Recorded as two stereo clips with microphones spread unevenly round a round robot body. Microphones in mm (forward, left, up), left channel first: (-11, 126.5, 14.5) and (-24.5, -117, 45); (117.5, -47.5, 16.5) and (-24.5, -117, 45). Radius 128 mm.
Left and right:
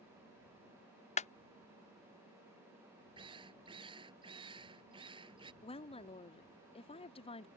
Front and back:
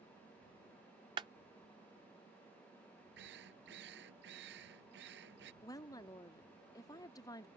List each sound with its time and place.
1.2 s a clap: 135° left
3.2 s a drill: 165° right
5.6 s a woman speaking: 55° left